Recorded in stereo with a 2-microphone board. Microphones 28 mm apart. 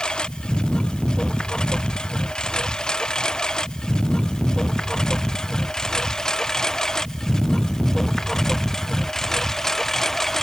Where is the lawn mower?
25° left (ahead or behind); by 10.4 s 10° left (ahead or behind).